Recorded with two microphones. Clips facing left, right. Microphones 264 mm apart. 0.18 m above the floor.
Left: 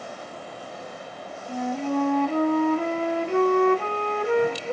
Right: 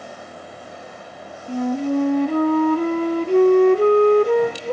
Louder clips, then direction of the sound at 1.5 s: Right 6 dB; 40° right (ahead or behind).